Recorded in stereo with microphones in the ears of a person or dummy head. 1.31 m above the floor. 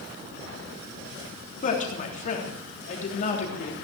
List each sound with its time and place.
1.6 s a woman speaking: 45° left (ahead or behind), 3.5 m